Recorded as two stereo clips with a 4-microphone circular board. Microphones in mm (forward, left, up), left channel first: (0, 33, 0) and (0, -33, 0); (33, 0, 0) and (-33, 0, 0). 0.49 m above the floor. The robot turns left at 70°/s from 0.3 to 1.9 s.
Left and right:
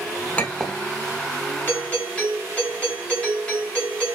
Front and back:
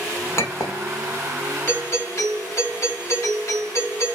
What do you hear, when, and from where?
0.4 s a clink: 25° left, 0.7 m; by 0.8 s 5° right, 0.7 m
1.7 s a doorbell: 40° left, 2 m; by 4.1 s 25° left, 2 m